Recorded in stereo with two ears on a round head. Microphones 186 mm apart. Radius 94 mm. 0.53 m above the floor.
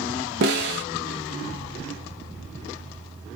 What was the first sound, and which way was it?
A snare drum, 55° right (ahead or behind).